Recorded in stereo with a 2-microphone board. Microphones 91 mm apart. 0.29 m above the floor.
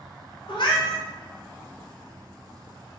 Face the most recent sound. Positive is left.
turn(degrees=65)  # may be behind; listen again after turning